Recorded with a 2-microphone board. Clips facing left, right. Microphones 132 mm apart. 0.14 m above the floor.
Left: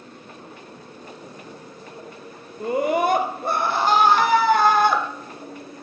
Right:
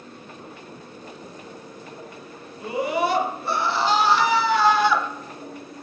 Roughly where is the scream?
Left.